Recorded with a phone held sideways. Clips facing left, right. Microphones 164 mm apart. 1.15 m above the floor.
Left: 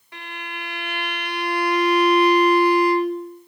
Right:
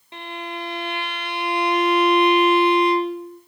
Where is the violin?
25° right (ahead or behind), 1.3 m.